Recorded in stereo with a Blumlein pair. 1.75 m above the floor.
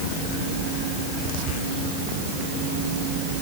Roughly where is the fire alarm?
No fire alarm in this recording.